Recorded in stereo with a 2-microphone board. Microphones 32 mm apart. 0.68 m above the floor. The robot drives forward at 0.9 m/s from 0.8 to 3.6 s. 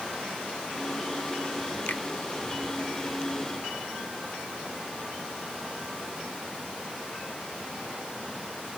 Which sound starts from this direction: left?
A finger snap, at 1.9 s.